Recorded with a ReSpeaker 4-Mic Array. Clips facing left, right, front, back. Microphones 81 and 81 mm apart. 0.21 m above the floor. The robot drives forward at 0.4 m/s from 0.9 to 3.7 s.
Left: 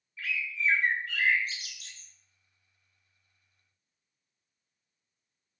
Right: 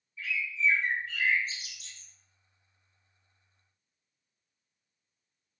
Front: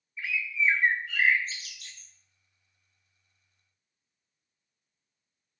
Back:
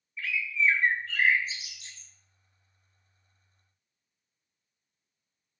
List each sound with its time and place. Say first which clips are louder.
0.2 s a bird: right 1 dB, back 1 dB; 70° left, 0.5 m; by 2.1 s 120° left, 0.6 m